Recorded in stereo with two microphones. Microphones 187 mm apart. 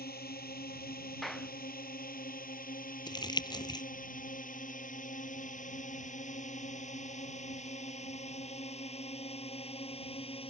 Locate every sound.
0.0 s a drone: 55° left (ahead or behind); by 10.5 s 30° left (ahead or behind)
1.2 s a clap: centre (ahead or behind)
3.1 s crumpling: 25° left (ahead or behind)